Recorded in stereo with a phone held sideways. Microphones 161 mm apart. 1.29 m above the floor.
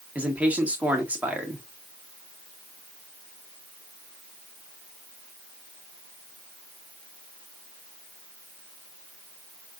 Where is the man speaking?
10° right (ahead or behind), 1.5 m.